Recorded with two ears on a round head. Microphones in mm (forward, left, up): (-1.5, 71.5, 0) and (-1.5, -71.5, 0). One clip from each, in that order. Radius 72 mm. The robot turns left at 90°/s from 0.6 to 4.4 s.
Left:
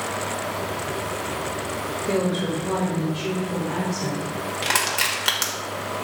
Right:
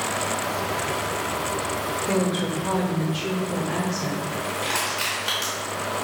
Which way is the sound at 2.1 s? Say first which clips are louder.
Left 3 dB; 5° left.